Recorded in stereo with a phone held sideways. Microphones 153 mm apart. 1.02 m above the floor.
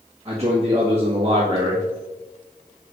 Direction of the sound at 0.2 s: 45° right (ahead or behind).